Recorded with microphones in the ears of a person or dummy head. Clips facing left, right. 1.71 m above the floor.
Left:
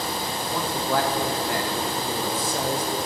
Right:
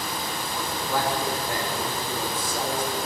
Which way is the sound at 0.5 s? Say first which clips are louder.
Left 4 dB; 55° left (ahead or behind).